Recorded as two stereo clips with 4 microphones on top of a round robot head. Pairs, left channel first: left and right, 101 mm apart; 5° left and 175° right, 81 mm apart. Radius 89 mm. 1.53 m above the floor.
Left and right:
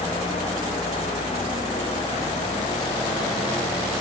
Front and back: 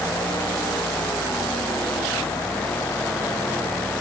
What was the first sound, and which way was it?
Only background noise.